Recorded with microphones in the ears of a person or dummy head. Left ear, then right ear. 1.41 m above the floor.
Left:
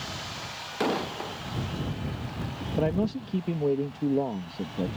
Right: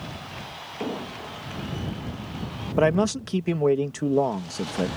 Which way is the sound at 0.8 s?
60° left (ahead or behind).